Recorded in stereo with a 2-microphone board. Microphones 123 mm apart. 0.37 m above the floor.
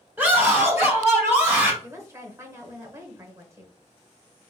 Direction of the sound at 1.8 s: 25° right (ahead or behind).